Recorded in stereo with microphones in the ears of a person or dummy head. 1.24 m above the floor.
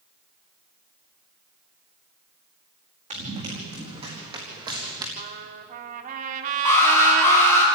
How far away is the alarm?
About 8 m.